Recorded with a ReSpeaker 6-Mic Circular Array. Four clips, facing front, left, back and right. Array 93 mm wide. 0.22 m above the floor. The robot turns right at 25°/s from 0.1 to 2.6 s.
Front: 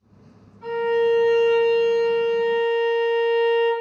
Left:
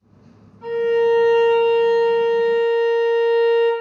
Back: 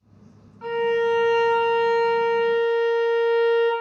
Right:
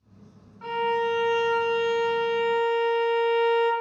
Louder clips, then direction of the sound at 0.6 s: Left 8 dB, front 1 dB; 150° right.